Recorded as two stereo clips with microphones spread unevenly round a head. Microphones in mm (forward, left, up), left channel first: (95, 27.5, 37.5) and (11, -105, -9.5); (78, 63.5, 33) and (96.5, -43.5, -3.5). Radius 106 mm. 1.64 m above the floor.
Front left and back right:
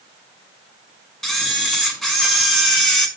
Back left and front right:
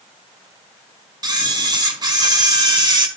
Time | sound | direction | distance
1.2 | a camera shutter | 25° right | 5 m